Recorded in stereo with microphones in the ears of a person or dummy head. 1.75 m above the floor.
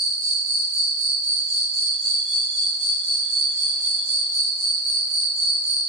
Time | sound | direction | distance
0.0 | an insect | 60° right (ahead or behind) | 2 m